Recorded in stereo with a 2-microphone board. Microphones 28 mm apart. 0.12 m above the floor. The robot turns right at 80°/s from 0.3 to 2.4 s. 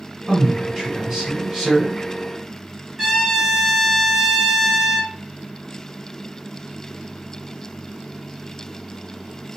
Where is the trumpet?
Centre (ahead or behind), 1.7 m.